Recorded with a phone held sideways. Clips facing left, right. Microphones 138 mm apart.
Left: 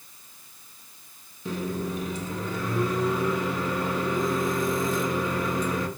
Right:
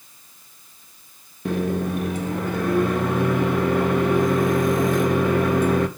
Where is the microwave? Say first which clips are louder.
Right 7 dB; 60° right (ahead or behind), 0.9 m.